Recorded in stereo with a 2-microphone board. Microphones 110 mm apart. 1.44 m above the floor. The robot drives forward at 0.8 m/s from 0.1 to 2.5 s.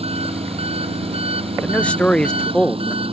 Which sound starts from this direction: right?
An engine running, at 0.0 s.